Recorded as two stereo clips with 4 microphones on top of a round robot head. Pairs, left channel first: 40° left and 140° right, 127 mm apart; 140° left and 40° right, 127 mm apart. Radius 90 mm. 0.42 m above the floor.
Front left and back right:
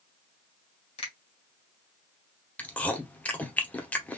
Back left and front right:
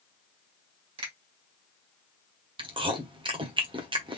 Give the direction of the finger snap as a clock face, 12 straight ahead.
12 o'clock.